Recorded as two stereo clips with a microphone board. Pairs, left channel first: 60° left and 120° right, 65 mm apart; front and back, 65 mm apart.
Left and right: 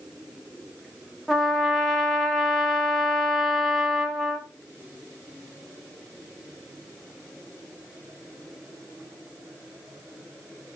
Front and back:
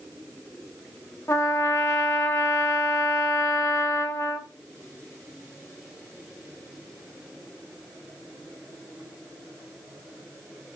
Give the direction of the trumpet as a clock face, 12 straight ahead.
1 o'clock.